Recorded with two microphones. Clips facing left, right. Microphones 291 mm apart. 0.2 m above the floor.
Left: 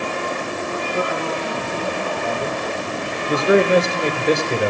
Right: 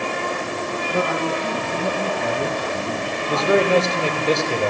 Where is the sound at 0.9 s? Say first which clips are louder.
Right 2 dB; 60° right (ahead or behind), 9 m; by 3.7 s 55° right (ahead or behind), 11 m.